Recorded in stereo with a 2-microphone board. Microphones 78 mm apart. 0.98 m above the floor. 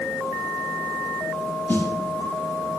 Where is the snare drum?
25° left (ahead or behind), 1.0 m.